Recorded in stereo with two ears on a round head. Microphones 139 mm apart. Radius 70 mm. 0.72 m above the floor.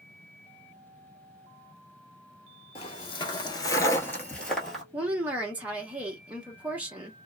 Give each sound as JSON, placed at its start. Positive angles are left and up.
{"t": 2.8, "sound": "footsteps", "side_deg": 35, "distance_m": 0.9}
{"t": 4.9, "sound": "a woman speaking", "side_deg": -10, "distance_m": 1.0}